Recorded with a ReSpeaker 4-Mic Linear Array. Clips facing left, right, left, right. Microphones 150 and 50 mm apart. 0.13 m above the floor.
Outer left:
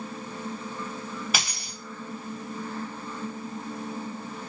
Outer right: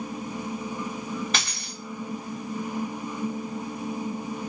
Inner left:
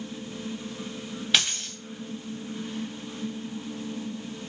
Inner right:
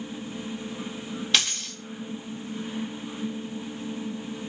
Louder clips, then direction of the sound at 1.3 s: Outer right 1 dB, inner left 1 dB; 10° left (ahead or behind).